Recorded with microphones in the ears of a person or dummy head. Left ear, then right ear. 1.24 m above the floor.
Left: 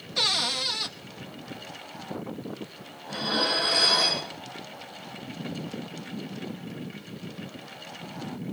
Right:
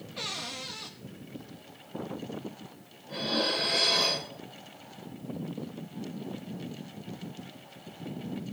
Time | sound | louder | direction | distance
0.2 | a cupboard door | left 12 dB | 40° left (ahead or behind) | 0.8 m
3.1 | dishes clattering | left 3 dB | 50° left (ahead or behind) | 5 m